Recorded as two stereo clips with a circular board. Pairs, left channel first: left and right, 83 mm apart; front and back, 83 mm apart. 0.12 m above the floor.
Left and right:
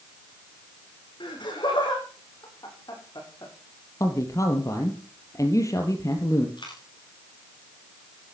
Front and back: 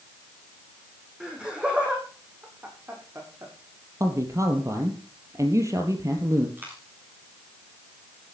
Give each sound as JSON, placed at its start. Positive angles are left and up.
{"t": 1.2, "sound": "laughter", "azimuth_deg": 100, "distance_m": 6.5}
{"t": 4.0, "sound": "a man speaking", "azimuth_deg": 135, "distance_m": 3.0}
{"t": 6.6, "sound": "a dropped coin", "azimuth_deg": 115, "distance_m": 8.5}